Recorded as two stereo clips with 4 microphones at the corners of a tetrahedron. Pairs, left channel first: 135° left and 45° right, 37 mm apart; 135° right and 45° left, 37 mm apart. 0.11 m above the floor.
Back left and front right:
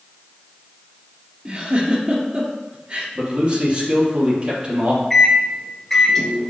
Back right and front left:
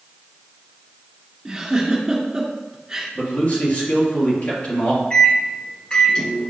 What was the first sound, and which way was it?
A giggle, 20° right.